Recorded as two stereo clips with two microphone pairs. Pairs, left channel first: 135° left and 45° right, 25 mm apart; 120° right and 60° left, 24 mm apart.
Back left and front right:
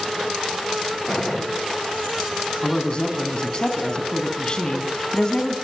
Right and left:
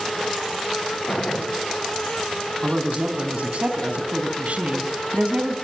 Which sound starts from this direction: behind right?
A gunshot, at 1.1 s.